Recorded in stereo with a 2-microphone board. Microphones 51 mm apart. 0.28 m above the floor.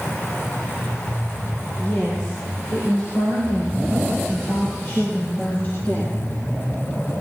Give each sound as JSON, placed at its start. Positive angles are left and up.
{"t": 1.8, "sound": "a woman speaking", "side_deg": 60, "distance_m": 7.0}